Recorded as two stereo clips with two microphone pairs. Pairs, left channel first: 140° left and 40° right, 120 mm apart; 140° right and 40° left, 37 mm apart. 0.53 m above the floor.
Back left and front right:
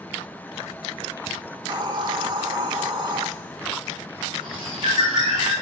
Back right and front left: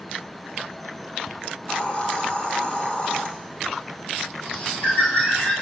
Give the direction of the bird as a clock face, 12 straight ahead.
3 o'clock.